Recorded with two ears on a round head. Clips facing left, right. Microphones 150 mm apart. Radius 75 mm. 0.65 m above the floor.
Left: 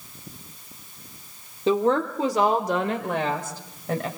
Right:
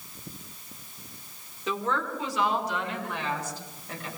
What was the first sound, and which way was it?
A woman speaking, 30° left (ahead or behind).